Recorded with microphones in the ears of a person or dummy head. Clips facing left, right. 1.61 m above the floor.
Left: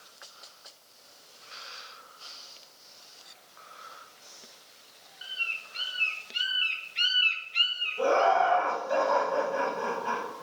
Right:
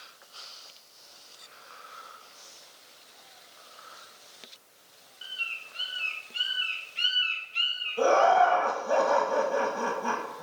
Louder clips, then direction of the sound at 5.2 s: Left 2 dB; 25° left (ahead or behind).